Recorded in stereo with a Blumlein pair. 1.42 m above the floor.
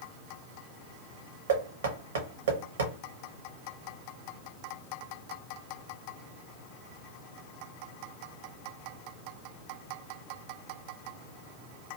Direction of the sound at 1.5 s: 60° right.